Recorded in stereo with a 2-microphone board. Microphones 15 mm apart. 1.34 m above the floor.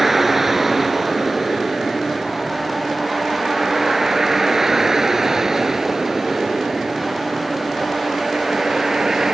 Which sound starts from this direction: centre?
A vehicle, at 0.0 s.